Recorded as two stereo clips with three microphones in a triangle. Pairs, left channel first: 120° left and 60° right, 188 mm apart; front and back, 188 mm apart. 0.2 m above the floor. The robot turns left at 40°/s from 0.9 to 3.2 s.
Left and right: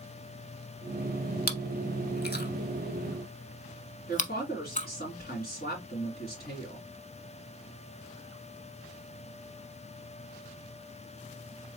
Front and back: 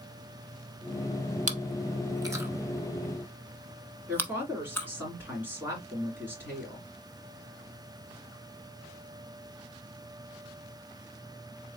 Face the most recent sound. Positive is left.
turn(degrees=105)